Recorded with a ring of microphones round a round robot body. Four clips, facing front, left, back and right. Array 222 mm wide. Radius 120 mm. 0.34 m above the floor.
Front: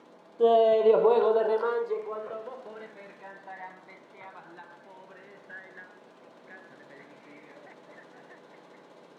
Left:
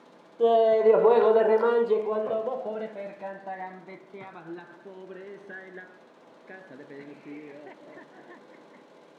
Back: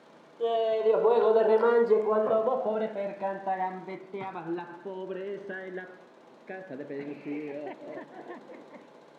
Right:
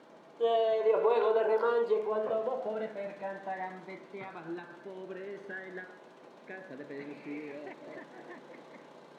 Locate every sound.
0.4 s laughter: 40° left; by 8.9 s 170° right